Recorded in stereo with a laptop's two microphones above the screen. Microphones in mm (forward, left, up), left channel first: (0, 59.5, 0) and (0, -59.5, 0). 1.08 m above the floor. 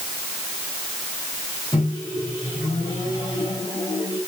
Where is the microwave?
35° left (ahead or behind), 5.5 m.